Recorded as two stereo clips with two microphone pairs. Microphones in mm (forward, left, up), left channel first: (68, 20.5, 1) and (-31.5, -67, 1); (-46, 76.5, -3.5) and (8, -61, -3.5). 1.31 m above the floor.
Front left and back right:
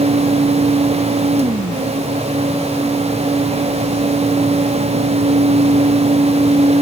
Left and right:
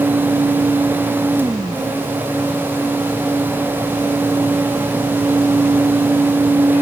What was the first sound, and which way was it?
Only background noise.